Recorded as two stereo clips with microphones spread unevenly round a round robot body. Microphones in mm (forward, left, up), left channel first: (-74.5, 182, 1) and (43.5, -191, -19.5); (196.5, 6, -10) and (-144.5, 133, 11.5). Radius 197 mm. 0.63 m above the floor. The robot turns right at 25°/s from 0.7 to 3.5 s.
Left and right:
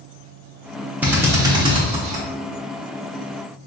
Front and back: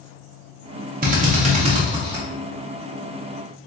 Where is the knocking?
I don't hear knocking.